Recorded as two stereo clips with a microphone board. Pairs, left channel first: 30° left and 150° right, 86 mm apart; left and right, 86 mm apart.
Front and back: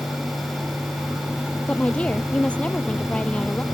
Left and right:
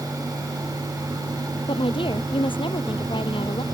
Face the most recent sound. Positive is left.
turn(degrees=105)